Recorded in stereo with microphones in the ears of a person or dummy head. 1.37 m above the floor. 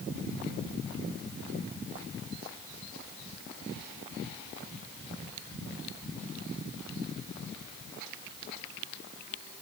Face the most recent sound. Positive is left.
No sound to turn to.